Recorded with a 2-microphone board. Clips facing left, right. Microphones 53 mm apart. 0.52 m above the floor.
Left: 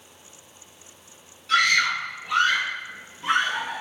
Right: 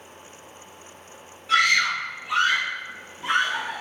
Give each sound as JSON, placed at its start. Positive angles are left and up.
{"t": 1.5, "sound": "a scream", "side_deg": -15, "distance_m": 1.5}